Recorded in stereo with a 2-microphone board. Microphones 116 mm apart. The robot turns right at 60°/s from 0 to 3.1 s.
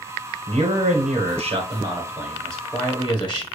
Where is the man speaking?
120° right, 1.2 m; by 3.5 s 40° left, 1.2 m.